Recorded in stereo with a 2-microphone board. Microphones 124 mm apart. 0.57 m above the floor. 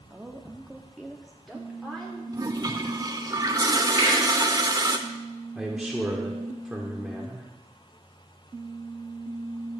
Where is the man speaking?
5° right (ahead or behind), 1.1 m.